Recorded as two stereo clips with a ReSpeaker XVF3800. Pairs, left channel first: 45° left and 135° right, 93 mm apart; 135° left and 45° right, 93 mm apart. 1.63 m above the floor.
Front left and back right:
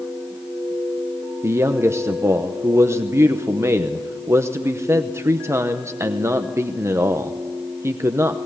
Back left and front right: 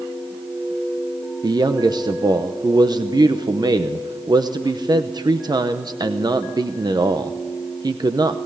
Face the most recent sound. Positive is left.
turn(degrees=-80)